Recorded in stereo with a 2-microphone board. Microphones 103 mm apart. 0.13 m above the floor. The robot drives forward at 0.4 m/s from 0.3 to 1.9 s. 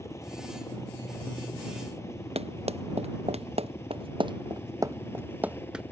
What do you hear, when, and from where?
0.0 s a helicopter: 30° left (ahead or behind); by 5.9 s 25° left (ahead or behind)
2.4 s running footsteps: 75° right (ahead or behind); by 5.8 s 5° right (ahead or behind)